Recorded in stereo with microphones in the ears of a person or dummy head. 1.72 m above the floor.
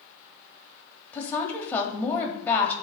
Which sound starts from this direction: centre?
A woman speaking, at 1.1 s.